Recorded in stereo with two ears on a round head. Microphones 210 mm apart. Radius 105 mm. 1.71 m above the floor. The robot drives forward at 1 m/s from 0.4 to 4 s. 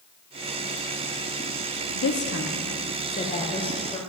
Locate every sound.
1.9 s a woman speaking: 60° left (ahead or behind), 1.1 m; by 4.0 s 20° left (ahead or behind), 3 m